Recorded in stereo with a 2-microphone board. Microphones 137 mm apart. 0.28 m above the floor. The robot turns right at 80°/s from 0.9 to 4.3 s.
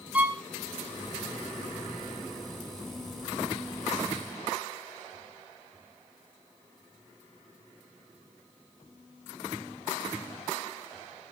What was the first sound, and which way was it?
A violin, 10° right (ahead or behind).